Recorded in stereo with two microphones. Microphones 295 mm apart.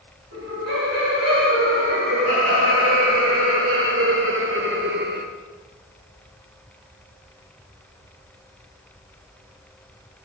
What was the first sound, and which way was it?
Laughter, 55° right (ahead or behind).